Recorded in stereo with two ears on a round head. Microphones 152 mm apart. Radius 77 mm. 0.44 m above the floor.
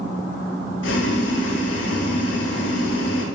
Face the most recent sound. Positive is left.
turn(degrees=75)  # may be behind; listen again after turning